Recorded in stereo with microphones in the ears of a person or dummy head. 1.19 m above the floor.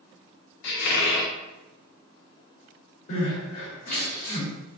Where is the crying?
55° left (ahead or behind), 1.8 m.